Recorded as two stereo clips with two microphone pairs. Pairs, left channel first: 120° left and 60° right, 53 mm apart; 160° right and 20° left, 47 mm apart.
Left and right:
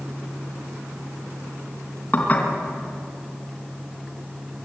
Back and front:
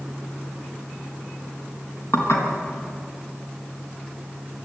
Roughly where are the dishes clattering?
Behind.